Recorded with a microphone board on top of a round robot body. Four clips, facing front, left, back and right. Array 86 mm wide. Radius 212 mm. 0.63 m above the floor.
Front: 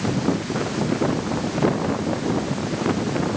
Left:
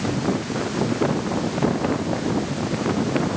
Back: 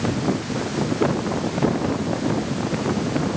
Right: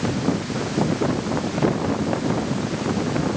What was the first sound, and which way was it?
Only background noise.